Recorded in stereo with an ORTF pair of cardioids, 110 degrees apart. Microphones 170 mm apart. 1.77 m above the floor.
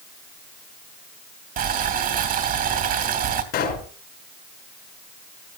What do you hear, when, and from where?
1.6 s boiling: 60° right, 2.5 m
3.5 s a pop: 70° left, 4.5 m